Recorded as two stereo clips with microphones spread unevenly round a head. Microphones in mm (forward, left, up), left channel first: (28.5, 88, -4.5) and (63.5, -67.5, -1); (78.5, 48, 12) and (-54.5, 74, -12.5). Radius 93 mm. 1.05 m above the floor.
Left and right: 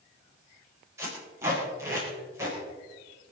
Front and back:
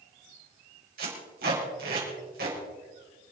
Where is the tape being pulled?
155° right, 4.5 m.